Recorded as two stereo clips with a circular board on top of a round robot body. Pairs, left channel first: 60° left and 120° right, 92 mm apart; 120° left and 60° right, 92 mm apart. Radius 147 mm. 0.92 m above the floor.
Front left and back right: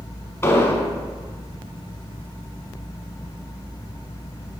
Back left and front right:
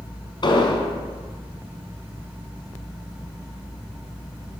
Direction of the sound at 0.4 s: 110° left.